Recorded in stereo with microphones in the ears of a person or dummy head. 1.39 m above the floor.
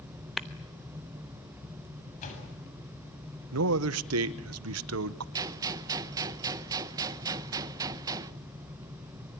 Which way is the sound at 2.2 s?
40° left (ahead or behind).